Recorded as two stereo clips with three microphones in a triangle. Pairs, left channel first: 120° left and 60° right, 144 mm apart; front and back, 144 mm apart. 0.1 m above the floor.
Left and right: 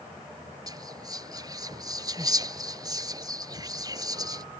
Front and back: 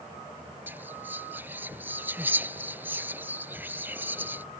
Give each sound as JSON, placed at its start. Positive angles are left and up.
{"t": 0.7, "sound": "whispering", "azimuth_deg": -110}